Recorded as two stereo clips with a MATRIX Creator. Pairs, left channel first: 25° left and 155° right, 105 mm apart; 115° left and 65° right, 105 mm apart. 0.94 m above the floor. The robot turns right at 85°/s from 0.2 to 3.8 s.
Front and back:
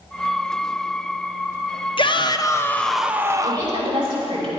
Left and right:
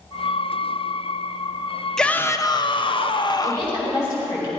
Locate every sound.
2.0 s a shout: 30° left, 0.6 m; by 3.8 s 175° right, 0.6 m
3.4 s a woman speaking: 130° left, 5.5 m; by 4.5 s 160° left, 5.5 m